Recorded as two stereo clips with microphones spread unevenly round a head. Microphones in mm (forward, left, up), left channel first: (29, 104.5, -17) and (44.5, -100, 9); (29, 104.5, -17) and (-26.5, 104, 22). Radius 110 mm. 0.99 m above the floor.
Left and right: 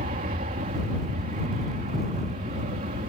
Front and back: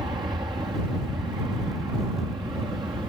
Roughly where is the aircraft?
Behind right.